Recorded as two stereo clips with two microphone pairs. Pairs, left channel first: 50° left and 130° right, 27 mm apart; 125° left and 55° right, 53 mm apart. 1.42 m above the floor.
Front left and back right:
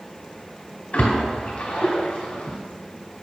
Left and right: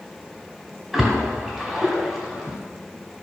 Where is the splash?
35° left, 2 m.